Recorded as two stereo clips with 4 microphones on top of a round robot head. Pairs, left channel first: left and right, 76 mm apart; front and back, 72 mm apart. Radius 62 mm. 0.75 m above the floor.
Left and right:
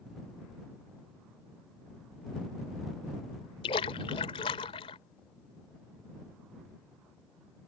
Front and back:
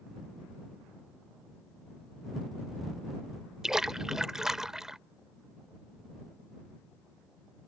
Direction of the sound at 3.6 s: 95° left.